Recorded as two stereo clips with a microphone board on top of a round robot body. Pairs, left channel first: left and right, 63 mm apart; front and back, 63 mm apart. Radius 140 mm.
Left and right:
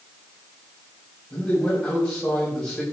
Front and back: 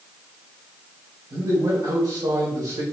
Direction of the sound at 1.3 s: 160° left.